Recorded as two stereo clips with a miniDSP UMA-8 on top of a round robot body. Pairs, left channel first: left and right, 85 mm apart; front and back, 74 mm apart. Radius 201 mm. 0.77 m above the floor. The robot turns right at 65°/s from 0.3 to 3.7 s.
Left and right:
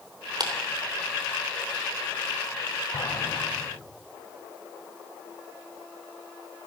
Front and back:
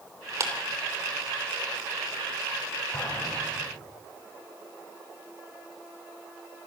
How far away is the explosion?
About 8 m.